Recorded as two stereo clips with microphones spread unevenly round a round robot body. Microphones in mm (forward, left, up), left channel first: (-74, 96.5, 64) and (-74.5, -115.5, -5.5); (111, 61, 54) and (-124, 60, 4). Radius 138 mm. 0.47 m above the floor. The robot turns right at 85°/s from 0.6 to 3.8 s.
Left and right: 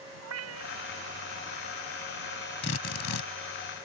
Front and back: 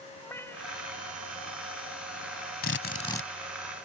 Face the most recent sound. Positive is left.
turn(degrees=135)